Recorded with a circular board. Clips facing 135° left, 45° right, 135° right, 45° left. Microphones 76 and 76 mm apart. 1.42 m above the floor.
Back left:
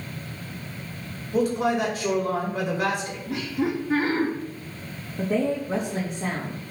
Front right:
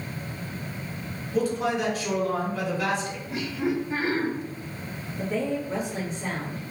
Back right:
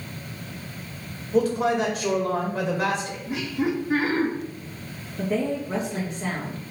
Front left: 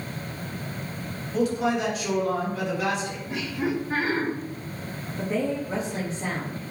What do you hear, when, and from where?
1.3 s a man speaking: 170° left, 2 m
3.3 s laughter: 140° left, 2.5 m
5.2 s a woman speaking: 130° left, 1.9 m